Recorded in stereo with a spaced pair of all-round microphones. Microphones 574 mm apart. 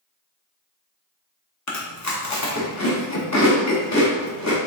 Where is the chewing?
30° left (ahead or behind), 0.7 m.